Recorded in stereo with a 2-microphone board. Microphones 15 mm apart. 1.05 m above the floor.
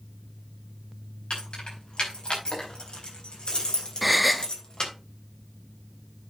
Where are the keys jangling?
75° left (ahead or behind), 5 m; by 4.9 s 50° left (ahead or behind), 3.5 m.